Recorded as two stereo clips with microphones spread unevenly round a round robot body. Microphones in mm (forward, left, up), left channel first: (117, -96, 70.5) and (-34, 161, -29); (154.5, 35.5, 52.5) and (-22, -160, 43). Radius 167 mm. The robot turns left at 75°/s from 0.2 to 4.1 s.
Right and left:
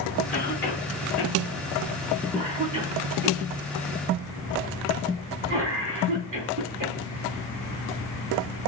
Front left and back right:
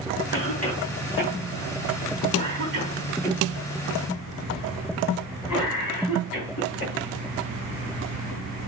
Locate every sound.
0.3 s a cough: 10° left, 4 m; by 6.9 s 90° left, 4 m